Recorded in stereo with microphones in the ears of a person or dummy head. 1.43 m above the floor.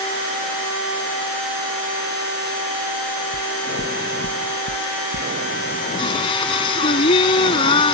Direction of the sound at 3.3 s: 75° left (ahead or behind).